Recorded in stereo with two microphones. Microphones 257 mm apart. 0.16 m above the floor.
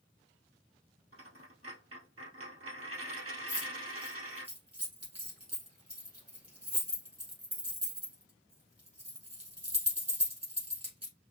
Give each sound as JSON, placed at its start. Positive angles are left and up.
{"t": 1.1, "sound": "a dropped coin", "side_deg": -60, "distance_m": 1.9}
{"t": 3.5, "sound": "keys jangling", "side_deg": -75, "distance_m": 3.5}